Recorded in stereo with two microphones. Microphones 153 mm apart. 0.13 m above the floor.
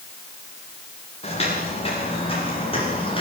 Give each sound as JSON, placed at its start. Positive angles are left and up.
{"t": 1.2, "sound": "footsteps", "side_deg": 40, "distance_m": 9.0}